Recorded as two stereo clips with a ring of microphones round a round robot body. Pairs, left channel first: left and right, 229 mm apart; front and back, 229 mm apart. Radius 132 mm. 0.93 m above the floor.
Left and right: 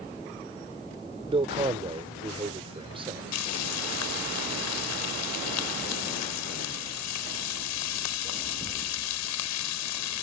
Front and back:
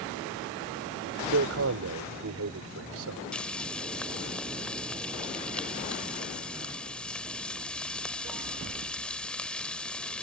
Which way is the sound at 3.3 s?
85° left.